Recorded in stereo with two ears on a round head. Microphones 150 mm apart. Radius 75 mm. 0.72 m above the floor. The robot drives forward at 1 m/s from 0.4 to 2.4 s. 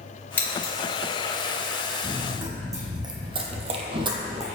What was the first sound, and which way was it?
Scissors, 10° left (ahead or behind).